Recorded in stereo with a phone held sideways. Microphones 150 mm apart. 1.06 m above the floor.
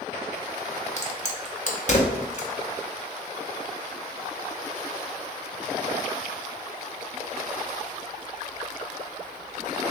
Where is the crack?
50° left (ahead or behind), 0.7 m.